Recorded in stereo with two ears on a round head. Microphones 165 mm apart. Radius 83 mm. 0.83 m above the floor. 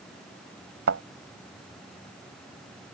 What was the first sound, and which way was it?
A thud, 80° right.